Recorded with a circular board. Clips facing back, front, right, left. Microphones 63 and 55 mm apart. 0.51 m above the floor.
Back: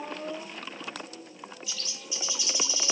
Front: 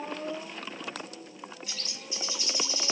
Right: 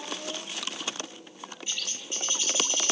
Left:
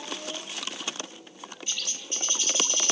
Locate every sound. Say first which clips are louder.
1.7 s a bird: even, even; 15° right, 1.2 m